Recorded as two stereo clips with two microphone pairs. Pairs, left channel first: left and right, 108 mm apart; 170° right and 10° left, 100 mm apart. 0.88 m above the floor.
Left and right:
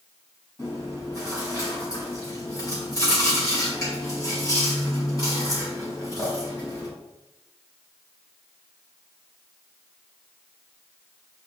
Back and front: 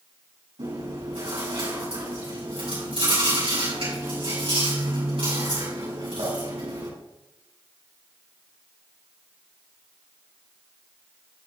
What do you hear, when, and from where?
0.6 s chewing: 30° left, 4.5 m